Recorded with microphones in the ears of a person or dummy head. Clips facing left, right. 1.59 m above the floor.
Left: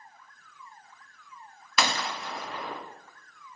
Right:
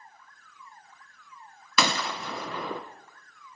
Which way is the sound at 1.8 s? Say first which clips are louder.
Right 2 dB; 75° right (ahead or behind).